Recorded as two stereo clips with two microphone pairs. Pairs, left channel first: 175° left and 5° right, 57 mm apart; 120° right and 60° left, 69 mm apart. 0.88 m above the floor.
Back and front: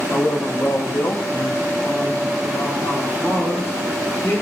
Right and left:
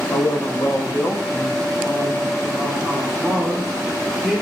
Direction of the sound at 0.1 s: 145° right.